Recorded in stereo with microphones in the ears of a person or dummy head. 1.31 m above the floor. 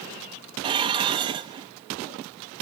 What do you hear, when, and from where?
0.6 s dishes clattering: 25° right (ahead or behind), 0.9 m